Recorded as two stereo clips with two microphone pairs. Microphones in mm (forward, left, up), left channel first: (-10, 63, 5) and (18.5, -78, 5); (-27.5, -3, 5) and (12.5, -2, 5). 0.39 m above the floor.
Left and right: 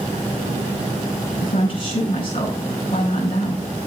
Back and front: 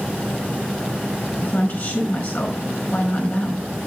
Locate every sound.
1.4 s a woman speaking: 150° left, 5 m